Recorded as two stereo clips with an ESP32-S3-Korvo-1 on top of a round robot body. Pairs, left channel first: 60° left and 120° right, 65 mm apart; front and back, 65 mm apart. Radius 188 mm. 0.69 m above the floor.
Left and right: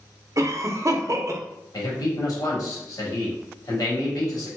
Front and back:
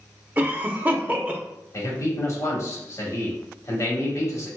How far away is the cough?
About 1.0 m.